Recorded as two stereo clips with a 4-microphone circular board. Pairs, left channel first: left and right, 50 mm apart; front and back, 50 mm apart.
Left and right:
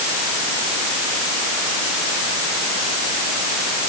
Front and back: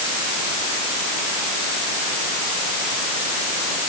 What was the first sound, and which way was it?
Only background noise.